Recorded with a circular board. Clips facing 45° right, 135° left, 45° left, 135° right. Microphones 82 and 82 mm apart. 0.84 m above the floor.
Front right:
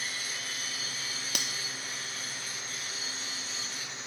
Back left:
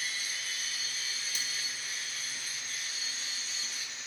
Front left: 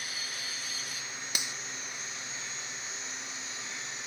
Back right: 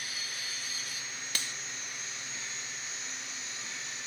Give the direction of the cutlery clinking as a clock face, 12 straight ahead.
1 o'clock.